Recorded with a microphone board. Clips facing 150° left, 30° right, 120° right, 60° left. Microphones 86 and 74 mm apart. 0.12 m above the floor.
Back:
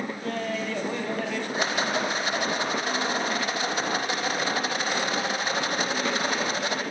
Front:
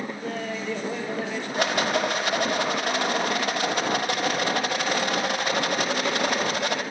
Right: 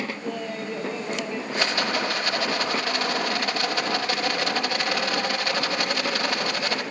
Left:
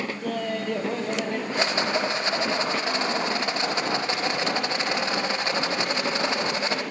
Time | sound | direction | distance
0.2 | laughter | 50° left | 3.5 m
1.5 | a rattle | 5° right | 4 m